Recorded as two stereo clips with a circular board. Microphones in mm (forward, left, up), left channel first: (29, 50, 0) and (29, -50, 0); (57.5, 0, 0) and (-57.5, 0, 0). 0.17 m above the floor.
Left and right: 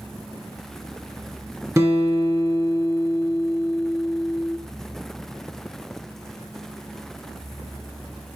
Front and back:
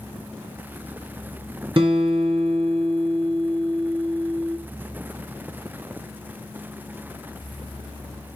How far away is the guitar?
About 1.7 m.